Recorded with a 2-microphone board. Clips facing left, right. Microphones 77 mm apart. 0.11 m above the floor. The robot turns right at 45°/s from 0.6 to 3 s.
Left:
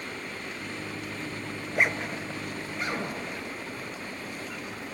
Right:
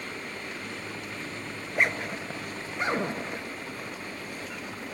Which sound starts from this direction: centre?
A zipper, at 1.6 s.